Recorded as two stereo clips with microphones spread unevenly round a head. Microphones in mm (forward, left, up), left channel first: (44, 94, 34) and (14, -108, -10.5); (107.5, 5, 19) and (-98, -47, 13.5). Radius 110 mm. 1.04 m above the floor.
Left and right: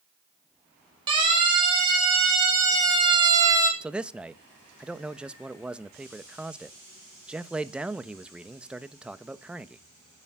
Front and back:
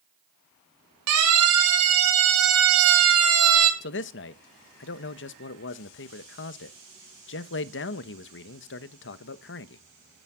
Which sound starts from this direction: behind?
A siren, at 1.1 s.